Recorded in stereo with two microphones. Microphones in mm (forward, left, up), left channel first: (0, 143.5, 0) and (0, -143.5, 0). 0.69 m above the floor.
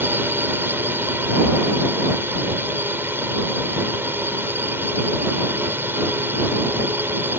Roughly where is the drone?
Centre.